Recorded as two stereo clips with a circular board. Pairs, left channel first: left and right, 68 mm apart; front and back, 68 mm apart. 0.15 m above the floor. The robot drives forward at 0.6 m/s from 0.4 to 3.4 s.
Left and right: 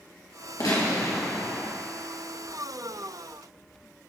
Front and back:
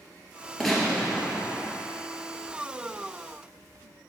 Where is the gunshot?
85° left, 2.5 m; by 1.7 s 105° left, 2.5 m.